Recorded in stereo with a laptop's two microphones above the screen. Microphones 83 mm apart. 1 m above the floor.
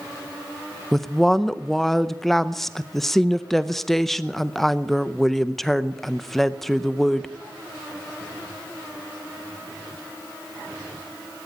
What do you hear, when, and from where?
0.9 s a woman speaking: centre (ahead or behind), 0.6 m